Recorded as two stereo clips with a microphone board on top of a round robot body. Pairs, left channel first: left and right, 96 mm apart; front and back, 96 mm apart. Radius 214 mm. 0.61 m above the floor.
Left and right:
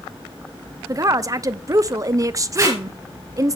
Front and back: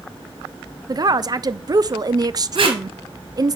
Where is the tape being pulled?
150° right, 3.5 m.